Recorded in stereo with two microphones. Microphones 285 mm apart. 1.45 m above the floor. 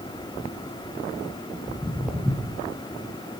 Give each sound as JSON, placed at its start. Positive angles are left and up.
{"t": 1.7, "sound": "footsteps", "side_deg": -5, "distance_m": 1.8}